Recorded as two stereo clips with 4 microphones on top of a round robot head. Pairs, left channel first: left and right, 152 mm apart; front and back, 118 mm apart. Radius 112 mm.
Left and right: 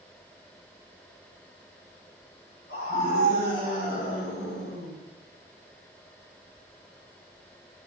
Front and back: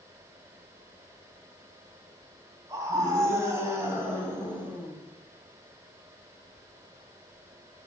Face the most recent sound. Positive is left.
turn(degrees=105)